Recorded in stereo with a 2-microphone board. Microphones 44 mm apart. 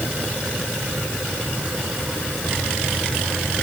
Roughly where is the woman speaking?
I don't hear a woman speaking.